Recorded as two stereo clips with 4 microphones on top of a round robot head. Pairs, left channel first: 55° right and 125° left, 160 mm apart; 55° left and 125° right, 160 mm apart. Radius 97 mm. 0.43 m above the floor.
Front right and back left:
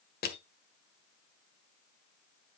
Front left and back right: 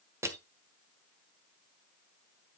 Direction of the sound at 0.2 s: 55° right.